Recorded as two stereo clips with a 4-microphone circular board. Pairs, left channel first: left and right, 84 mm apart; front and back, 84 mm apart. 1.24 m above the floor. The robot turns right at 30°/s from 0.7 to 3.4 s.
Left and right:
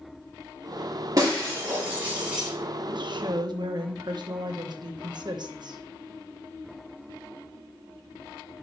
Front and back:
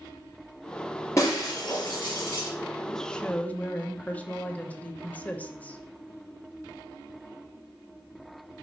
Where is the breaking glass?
50° right, 4 m; by 2.5 s 10° right, 4 m.